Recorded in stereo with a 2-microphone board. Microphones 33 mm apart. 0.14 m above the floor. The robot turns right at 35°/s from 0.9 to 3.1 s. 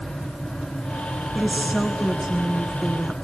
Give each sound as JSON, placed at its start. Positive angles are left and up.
{"t": 1.4, "sound": "a woman speaking", "side_deg": -10, "distance_m": 1.2}